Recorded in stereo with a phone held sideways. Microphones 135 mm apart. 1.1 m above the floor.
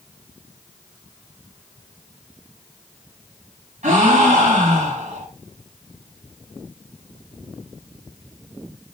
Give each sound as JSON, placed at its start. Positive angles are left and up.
{"t": 3.8, "sound": "a gasp", "side_deg": -60, "distance_m": 2.0}